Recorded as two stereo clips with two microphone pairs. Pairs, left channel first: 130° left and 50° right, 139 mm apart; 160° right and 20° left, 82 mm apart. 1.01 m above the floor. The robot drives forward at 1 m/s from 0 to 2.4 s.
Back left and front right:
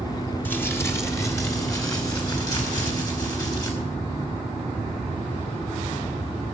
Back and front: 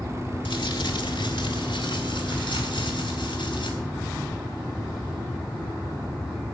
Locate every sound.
0.5 s crumpling: 155° right, 1.3 m; by 3.7 s 170° right, 3 m